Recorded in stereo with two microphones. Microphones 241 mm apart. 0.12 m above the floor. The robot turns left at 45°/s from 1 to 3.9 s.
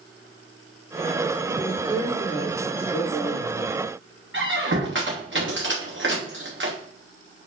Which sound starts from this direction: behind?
A man speaking, at 1.6 s.